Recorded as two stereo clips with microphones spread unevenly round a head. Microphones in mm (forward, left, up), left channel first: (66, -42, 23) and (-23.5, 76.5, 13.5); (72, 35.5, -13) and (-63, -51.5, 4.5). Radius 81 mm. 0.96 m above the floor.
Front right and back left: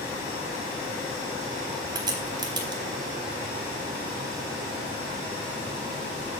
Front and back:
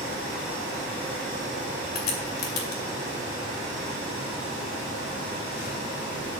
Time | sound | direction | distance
1.9 | a crack | 65° left | 2.5 m